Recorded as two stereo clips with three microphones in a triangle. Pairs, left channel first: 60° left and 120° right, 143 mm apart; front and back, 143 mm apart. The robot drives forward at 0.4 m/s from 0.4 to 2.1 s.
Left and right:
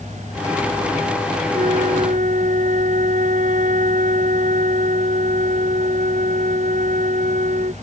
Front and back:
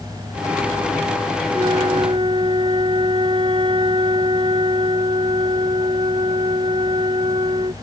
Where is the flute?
130° right.